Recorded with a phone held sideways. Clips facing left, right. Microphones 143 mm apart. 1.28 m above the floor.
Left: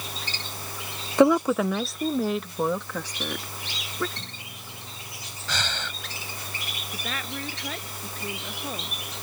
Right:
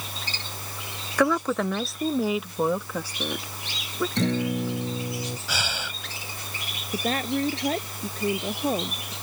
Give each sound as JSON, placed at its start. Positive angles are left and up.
{"t": 1.2, "sound": "a woman speaking", "side_deg": 25}
{"t": 4.2, "sound": "a guitar", "side_deg": -90}
{"t": 5.5, "sound": "breathing", "side_deg": -10}
{"t": 6.9, "sound": "a woman speaking", "side_deg": -40}